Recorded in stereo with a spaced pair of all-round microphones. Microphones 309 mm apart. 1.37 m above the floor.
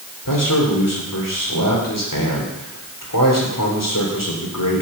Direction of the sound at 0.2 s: 75° left (ahead or behind).